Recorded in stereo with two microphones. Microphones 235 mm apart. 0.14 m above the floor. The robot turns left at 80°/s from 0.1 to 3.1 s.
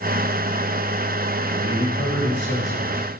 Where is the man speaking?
160° left, 9.5 m; by 3.2 s 35° left, 9.5 m.